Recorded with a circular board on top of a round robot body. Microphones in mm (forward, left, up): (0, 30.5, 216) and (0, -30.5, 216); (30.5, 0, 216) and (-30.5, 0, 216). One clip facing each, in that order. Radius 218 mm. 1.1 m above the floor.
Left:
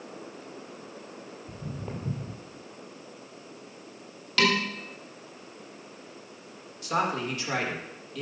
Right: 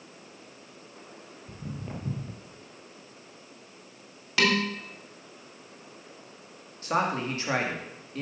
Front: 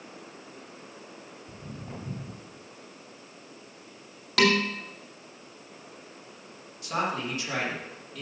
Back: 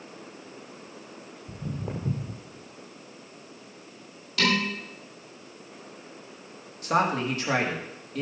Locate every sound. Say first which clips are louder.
1.5 s footsteps: even, back 8 dB; 175° left, 1.4 m
4.4 s dishes clattering: even, front 3 dB; 15° right, 2.5 m
6.8 s a man speaking: right 1 dB, back 5 dB; 140° right, 2.5 m